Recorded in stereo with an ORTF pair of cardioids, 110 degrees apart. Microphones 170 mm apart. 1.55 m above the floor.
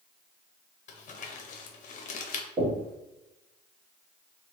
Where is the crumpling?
45° left, 0.8 m.